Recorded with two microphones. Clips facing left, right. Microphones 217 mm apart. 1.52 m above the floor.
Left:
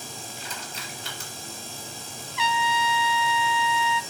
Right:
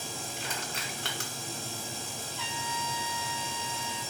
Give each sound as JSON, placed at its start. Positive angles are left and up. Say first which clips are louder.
{"t": 0.4, "sound": "crushing", "louder": "right 1 dB", "side_deg": -70, "distance_m": 6.0}
{"t": 2.4, "sound": "a trumpet", "louder": "left 13 dB", "side_deg": 85, "distance_m": 0.7}